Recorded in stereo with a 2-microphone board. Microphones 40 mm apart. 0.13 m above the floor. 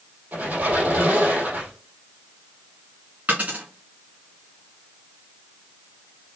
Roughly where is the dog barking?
I don't hear a dog barking.